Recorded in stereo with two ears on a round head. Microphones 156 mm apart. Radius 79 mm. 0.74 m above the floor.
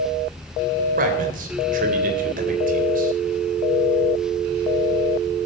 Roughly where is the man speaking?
Right.